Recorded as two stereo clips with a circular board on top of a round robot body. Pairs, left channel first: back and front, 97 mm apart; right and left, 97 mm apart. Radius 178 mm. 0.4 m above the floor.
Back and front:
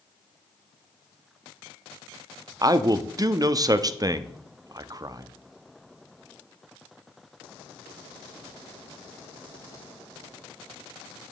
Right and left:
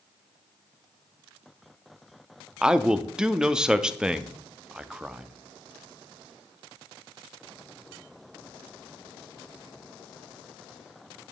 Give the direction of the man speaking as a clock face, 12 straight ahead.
12 o'clock.